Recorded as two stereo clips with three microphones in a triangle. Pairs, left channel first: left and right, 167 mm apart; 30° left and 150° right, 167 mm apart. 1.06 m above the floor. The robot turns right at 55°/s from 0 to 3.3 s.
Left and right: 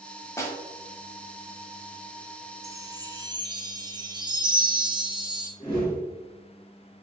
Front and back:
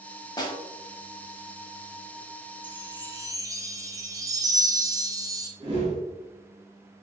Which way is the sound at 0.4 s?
40° left.